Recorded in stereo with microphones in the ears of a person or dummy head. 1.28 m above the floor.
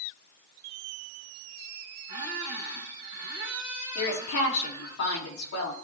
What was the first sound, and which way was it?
A squeak, 25° right (ahead or behind).